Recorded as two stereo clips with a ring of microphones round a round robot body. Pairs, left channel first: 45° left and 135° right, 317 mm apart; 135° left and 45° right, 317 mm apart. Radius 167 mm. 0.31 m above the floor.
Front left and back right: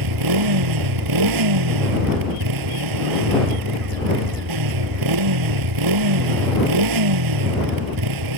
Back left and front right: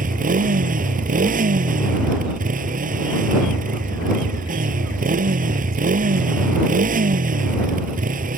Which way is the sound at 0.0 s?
110° right.